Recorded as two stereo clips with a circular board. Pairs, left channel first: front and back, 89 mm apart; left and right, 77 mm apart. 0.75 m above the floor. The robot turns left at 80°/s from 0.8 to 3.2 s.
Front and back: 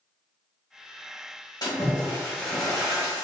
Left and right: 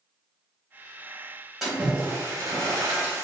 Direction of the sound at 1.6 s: 10° right.